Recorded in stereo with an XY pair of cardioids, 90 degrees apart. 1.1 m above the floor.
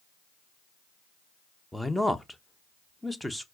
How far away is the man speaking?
About 0.8 m.